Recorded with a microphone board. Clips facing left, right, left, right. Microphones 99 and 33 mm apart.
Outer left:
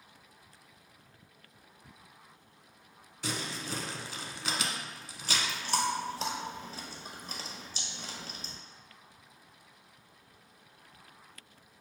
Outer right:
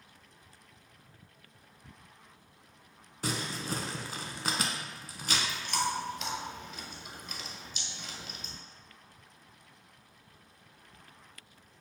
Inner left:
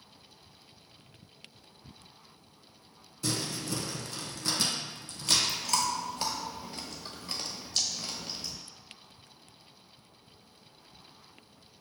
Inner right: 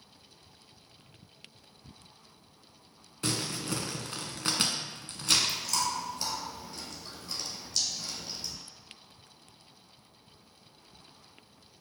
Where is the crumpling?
40° right (ahead or behind), 0.6 m.